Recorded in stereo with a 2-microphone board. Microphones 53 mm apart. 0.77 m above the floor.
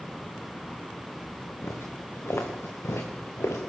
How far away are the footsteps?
About 3.5 m.